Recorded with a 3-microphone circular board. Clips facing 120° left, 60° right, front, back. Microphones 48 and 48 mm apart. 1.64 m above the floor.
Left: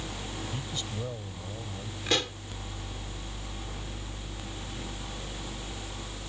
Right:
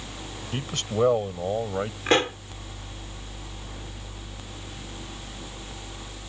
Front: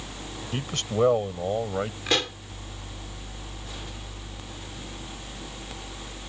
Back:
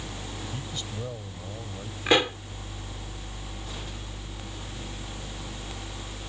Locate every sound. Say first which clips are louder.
0.5 s a man speaking: right 9 dB, front 9 dB; 30° right; by 2.0 s 35° right
2.1 s a pop: right 7 dB, back 7 dB; 110° right